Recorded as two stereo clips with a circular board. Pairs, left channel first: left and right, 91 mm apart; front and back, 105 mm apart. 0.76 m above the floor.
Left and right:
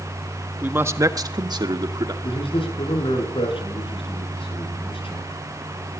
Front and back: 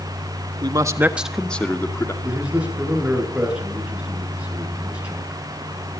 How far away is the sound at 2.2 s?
About 9 m.